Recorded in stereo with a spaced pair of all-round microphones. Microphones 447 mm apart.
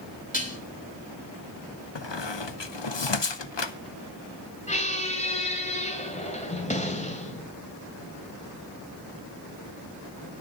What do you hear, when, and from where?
0.3 s dishes clattering: 20° left (ahead or behind), 2.5 m
1.9 s a squeak: 75° left (ahead or behind), 0.9 m
4.7 s a squeak: 15° left (ahead or behind), 1.9 m